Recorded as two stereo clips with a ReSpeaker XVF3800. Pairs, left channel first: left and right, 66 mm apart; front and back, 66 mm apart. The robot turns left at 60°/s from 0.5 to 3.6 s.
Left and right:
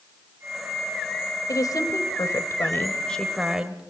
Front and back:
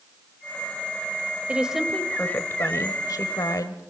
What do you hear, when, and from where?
1.5 s a woman speaking: 115° left, 1.8 m; by 3.8 s 15° right, 1.8 m